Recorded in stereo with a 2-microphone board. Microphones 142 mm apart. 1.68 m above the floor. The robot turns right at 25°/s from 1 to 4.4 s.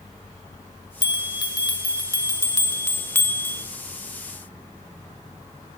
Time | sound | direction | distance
1.0 | a bell | 25° left (ahead or behind) | 0.9 m